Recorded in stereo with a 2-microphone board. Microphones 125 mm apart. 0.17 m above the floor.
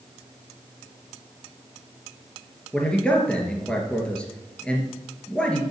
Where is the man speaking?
10° left (ahead or behind), 2.5 m.